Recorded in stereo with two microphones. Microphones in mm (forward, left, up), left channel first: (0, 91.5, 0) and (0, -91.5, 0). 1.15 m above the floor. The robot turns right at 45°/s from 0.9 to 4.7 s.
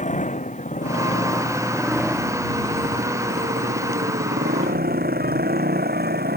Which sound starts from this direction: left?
A motorcycle, at 0.0 s.